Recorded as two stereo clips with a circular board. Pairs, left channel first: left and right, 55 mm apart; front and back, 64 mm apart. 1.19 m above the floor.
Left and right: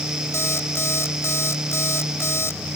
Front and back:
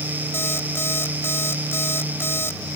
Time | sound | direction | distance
0.3 | an alarm clock | 50° left | ?